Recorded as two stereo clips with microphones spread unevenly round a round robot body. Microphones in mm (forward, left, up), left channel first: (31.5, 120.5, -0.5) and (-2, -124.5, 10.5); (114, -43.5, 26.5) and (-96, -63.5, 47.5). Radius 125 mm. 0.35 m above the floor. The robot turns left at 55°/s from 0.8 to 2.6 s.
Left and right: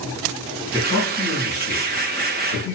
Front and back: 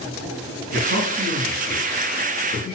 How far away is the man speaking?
About 3.5 m.